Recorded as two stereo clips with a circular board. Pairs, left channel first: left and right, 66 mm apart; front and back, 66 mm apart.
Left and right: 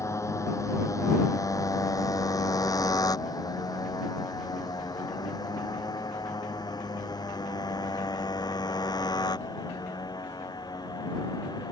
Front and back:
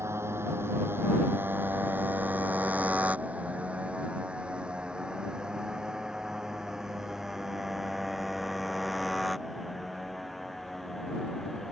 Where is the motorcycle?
135° left; by 11.7 s 90° left.